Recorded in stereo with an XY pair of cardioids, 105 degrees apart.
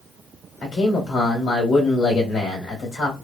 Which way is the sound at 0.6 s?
55° left.